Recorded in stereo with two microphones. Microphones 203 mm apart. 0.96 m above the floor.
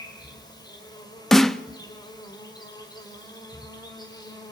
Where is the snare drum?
Centre (ahead or behind), 0.8 m.